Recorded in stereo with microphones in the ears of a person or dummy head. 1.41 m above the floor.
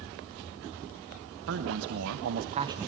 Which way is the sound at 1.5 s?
70° right (ahead or behind).